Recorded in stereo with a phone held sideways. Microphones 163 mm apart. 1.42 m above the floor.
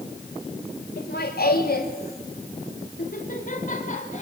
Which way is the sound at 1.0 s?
75° left (ahead or behind).